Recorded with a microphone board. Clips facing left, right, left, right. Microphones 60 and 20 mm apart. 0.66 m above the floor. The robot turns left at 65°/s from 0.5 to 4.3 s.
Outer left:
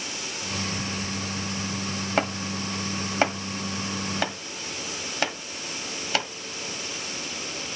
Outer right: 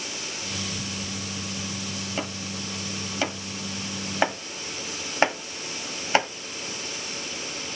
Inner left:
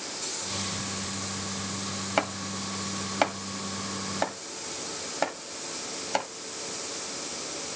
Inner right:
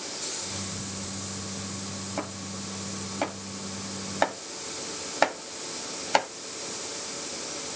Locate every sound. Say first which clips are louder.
2.2 s chopping: outer left 8 dB, inner left 8 dB; 70° left (ahead or behind), 1.2 m; by 6.3 s 30° right (ahead or behind), 1.2 m